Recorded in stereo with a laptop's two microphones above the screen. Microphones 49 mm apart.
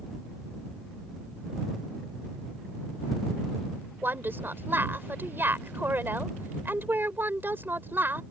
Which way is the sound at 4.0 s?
45° right (ahead or behind).